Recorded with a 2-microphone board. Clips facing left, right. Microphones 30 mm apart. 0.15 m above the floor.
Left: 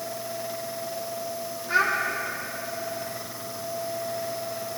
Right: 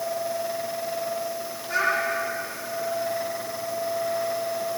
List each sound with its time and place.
1.7 s a child speaking: 20° left (ahead or behind), 3.5 m